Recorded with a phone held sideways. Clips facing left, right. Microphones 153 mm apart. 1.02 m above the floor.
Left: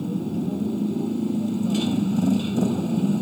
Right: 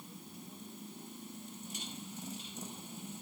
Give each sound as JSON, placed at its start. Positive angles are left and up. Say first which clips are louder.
{"t": 0.0, "sound": "a motorcycle", "louder": "left 25 dB", "side_deg": 80}